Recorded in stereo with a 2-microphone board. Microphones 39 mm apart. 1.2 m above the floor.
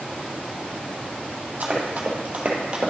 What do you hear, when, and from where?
1.6 s running footsteps: 45° right (ahead or behind), 1.9 m; by 2.9 s 25° right (ahead or behind), 1.3 m